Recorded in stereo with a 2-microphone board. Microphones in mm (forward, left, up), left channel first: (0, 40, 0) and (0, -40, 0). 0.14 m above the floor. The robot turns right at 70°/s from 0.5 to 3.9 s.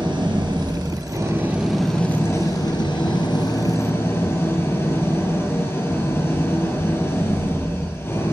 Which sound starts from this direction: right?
An engine running, at 0.0 s.